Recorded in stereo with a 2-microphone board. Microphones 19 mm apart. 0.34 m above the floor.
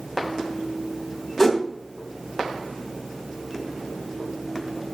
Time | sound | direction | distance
1.4 | a whoosh | 10° left (ahead or behind) | 2 m